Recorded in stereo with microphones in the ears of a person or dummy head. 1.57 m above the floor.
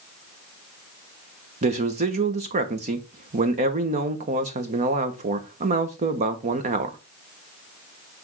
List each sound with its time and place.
1.6 s a man speaking: 35° right (ahead or behind), 1.1 m